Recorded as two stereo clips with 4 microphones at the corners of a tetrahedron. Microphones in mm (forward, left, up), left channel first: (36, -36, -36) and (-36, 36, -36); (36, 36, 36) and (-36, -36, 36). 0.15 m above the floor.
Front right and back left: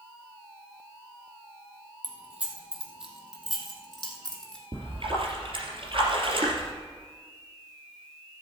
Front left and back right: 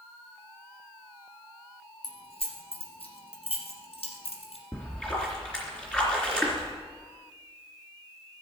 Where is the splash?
125° left, 3 m.